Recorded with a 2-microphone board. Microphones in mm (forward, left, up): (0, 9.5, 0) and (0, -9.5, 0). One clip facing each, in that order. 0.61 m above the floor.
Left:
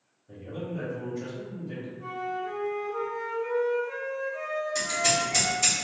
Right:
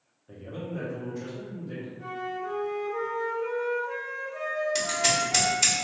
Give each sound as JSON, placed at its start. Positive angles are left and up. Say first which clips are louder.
{"t": 0.3, "sound": "a man speaking", "louder": "left 1 dB", "side_deg": -30, "distance_m": 0.9}
{"t": 2.0, "sound": "a flute", "louder": "left 1 dB", "side_deg": -35, "distance_m": 1.2}
{"t": 4.8, "sound": "scissors", "louder": "left 1 dB", "side_deg": -55, "distance_m": 1.6}